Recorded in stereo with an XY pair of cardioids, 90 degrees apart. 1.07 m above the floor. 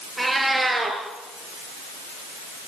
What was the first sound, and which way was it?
A cat meowing, 15° right.